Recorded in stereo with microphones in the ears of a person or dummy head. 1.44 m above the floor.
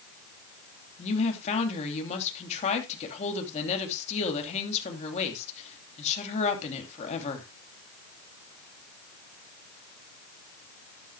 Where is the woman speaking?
35° left (ahead or behind), 3 m.